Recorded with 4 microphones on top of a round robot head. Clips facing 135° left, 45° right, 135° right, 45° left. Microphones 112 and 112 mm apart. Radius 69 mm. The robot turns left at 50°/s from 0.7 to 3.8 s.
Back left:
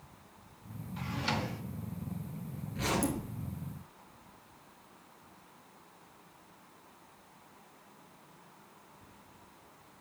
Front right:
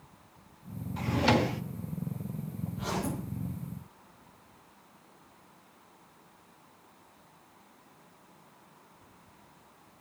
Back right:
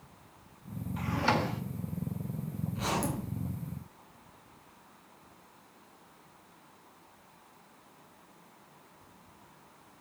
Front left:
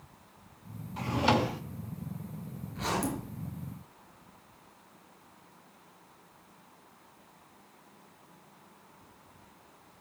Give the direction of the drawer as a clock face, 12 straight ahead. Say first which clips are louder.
Front right 10 dB, front left 3 dB; 12 o'clock.